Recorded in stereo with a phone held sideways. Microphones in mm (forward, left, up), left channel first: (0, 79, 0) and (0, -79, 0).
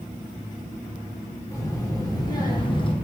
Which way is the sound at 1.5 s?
20° left (ahead or behind).